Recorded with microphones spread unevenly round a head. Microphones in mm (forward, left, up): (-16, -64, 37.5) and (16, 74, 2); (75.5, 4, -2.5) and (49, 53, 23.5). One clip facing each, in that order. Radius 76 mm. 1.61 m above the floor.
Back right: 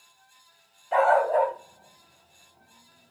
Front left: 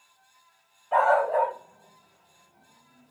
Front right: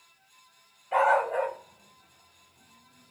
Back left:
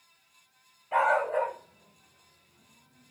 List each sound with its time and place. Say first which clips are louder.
0.9 s a dog barking: back right 1 dB, front right 2 dB; 170° right, 2.5 m; by 3.1 s 165° left, 1.4 m